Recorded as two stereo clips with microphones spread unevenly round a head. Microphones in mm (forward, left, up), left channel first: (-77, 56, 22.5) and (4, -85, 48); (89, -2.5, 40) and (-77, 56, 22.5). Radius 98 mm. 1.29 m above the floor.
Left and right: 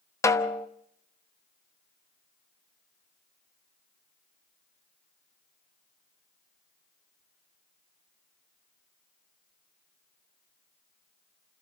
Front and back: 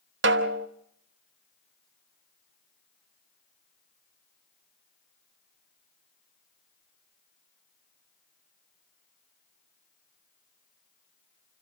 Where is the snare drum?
165° right, 1.1 m.